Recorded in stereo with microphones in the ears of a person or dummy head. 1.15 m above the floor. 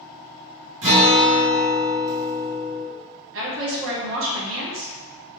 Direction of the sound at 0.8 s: 25° right (ahead or behind).